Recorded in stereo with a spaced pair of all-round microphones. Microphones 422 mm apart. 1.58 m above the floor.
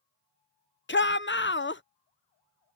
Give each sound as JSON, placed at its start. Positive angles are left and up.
{"t": 0.9, "sound": "a shout", "side_deg": 30}